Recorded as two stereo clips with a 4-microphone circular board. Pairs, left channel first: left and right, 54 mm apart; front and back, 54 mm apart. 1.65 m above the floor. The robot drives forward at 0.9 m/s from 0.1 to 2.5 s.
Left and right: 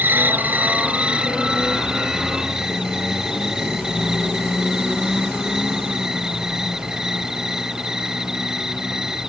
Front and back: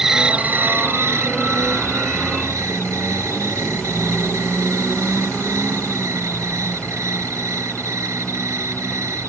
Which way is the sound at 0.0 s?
105° right.